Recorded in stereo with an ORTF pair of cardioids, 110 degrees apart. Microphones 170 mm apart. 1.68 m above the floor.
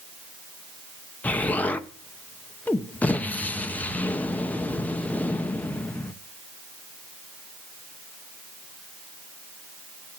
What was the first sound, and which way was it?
An explosion, 10° left.